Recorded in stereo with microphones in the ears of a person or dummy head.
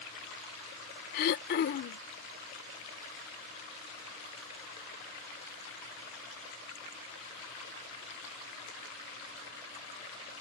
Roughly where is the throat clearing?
Left.